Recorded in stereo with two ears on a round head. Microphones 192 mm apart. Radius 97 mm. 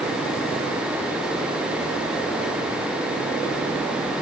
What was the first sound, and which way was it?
Only background noise.